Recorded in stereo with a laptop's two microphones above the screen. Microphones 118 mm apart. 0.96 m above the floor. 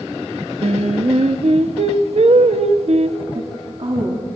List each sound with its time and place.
0.6 s singing: 60° right (ahead or behind), 0.7 m
3.4 s a woman speaking: 50° right (ahead or behind), 2 m